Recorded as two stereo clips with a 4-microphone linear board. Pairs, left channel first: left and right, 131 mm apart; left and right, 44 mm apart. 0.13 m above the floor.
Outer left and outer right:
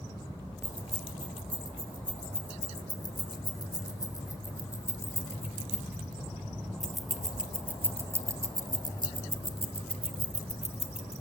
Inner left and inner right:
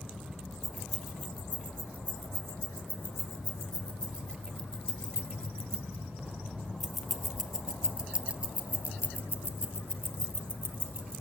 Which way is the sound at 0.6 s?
40° left (ahead or behind).